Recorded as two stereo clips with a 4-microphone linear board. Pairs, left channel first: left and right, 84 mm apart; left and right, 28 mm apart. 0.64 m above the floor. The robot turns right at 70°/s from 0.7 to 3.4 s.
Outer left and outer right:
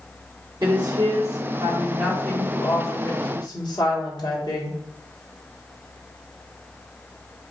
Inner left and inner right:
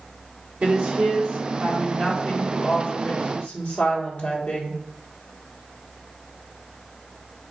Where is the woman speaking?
105° right, 1.5 m; by 4.7 s 85° left, 1.5 m.